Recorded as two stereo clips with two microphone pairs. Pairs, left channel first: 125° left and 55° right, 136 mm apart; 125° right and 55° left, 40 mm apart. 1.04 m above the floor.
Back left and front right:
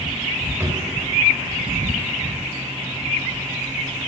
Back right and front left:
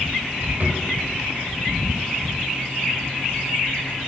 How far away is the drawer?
About 1.7 m.